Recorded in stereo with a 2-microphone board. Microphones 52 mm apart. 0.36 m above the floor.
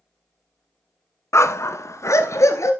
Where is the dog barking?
70° left (ahead or behind), 0.8 m; by 2.7 s 85° left, 1.6 m.